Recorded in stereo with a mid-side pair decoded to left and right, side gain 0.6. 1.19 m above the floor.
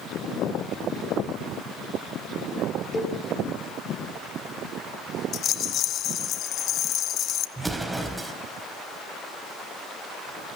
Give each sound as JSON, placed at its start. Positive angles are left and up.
{"t": 2.9, "sound": "a cowbell", "azimuth_deg": 10, "distance_m": 6.5}
{"t": 5.3, "sound": "a rattle", "azimuth_deg": 55, "distance_m": 0.9}
{"t": 7.6, "sound": "an explosion", "azimuth_deg": -10, "distance_m": 4.0}